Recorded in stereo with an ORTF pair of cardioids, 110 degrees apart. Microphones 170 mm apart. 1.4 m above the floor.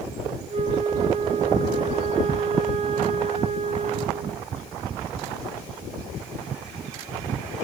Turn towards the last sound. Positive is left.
turn(degrees=-35)